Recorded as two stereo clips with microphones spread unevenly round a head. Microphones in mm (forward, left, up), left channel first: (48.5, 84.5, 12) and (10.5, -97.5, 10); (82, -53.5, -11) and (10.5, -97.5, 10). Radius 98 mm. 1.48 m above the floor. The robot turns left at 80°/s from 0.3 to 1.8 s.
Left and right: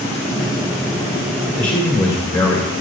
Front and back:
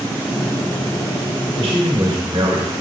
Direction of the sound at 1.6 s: 170° left.